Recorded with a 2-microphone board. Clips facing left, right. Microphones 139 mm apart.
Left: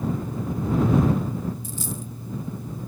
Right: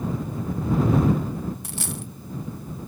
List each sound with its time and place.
1.6 s a dropped coin: 75° right (ahead or behind)